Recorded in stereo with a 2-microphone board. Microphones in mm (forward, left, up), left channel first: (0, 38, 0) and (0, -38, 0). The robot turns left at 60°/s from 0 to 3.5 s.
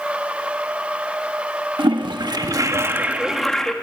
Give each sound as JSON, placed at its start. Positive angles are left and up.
{"t": 1.8, "sound": "a toilet flushing", "azimuth_deg": -85, "distance_m": 1.4}